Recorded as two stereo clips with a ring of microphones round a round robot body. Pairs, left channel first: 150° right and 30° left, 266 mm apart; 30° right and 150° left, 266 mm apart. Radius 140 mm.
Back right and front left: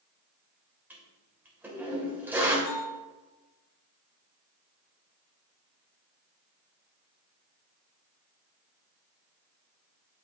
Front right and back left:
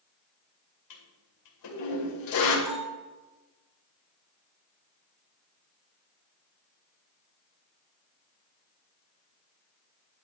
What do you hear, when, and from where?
0.9 s a toilet flushing: 55° right, 2.5 m
2.6 s a bell: 175° left, 5 m